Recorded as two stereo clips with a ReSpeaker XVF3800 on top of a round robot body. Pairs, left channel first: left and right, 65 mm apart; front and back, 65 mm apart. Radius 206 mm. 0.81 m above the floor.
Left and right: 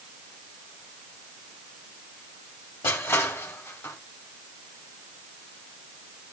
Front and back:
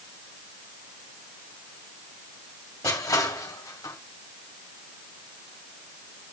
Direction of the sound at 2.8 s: 35° left.